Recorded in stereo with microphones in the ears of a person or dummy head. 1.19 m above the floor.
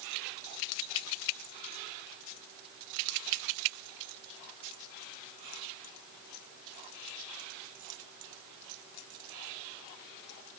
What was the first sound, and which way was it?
Only background noise.